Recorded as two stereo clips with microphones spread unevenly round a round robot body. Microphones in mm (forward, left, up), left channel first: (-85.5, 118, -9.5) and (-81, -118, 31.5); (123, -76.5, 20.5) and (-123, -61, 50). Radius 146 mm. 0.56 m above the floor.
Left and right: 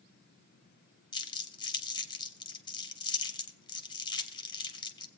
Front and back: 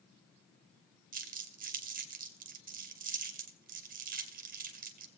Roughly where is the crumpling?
Behind left.